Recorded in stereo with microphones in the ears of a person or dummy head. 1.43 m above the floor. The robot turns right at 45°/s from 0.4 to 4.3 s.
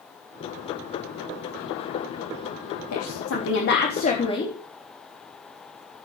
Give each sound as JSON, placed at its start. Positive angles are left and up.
{"t": 2.9, "sound": "a woman speaking", "azimuth_deg": 90, "distance_m": 3.5}